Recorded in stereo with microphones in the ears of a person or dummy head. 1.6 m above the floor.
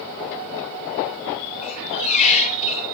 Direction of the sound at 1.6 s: 35° left (ahead or behind).